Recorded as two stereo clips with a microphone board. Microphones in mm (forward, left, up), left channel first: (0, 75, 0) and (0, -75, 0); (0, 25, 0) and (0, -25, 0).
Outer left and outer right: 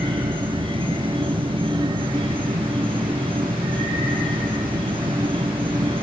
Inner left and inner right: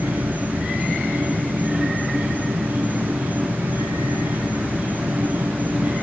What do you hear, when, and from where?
0.0 s an insect: 35° right (ahead or behind), 1.3 m